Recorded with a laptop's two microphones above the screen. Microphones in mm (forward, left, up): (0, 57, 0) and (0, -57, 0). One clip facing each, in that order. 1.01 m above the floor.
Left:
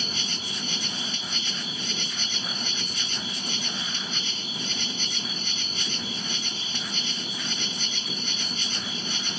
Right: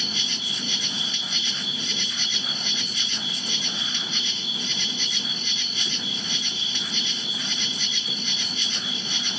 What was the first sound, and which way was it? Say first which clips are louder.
An insect: even; 45° left (ahead or behind).